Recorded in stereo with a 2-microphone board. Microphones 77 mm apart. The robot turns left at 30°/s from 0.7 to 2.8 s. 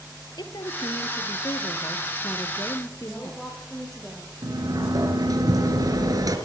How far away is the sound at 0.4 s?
About 3 m.